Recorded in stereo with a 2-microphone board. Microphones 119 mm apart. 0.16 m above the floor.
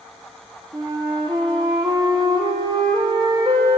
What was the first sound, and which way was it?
A flute, 40° right (ahead or behind).